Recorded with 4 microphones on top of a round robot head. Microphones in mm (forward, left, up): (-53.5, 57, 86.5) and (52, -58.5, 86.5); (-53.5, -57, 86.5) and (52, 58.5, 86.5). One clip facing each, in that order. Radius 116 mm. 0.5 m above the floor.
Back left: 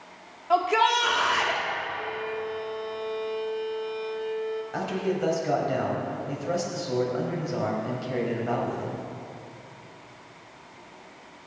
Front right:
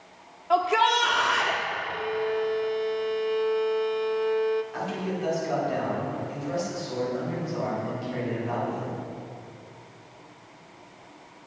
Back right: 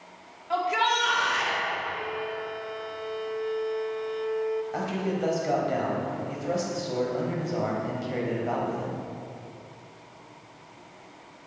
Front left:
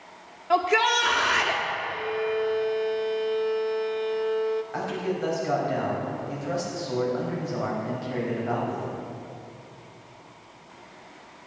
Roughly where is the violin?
Ahead.